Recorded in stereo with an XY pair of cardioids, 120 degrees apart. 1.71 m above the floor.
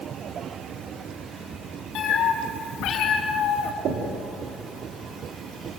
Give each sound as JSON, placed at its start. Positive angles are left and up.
{"t": 1.9, "sound": "a cat meowing", "azimuth_deg": 65, "distance_m": 5.0}
{"t": 3.9, "sound": "knocking", "azimuth_deg": -60, "distance_m": 4.0}